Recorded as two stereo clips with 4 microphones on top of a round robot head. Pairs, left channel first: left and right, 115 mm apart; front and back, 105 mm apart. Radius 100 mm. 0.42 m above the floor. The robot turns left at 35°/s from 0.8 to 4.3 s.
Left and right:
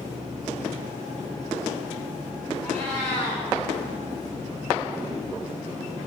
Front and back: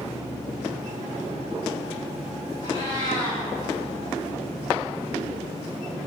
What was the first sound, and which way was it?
A cat meowing, 120° right.